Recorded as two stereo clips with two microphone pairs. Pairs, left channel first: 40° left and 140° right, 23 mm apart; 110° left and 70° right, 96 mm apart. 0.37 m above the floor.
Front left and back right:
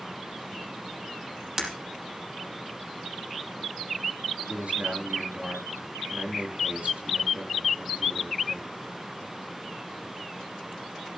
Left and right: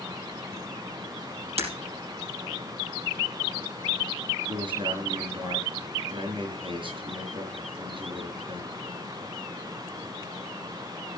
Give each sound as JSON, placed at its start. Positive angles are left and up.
{"t": 1.6, "sound": "breaking glass", "azimuth_deg": -70, "distance_m": 5.0}
{"t": 4.5, "sound": "a man speaking", "azimuth_deg": -110, "distance_m": 7.0}